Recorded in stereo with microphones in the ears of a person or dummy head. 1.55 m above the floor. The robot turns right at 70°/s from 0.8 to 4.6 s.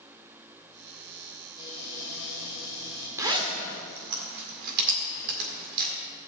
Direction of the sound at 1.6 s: 30° left.